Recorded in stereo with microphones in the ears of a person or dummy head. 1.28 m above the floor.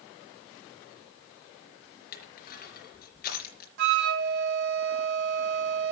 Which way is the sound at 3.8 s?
60° right (ahead or behind).